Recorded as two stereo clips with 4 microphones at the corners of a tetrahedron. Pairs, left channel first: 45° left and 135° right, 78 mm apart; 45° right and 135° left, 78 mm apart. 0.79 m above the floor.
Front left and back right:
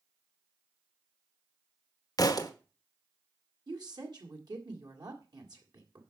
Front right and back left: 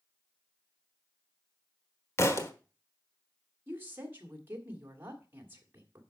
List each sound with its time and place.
2.2 s a thud: 10° left, 1.1 m
3.7 s a woman speaking: 160° right, 2 m